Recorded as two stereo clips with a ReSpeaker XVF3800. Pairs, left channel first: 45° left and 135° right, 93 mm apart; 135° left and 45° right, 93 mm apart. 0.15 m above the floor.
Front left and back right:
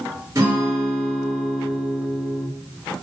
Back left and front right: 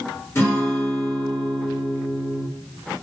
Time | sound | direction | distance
0.3 | a guitar | 175° right | 2.5 m